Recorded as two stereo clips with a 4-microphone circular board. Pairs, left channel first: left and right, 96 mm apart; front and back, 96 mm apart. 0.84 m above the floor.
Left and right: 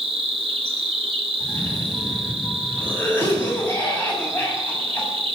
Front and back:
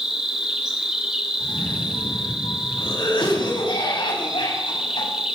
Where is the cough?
20° left, 7 m.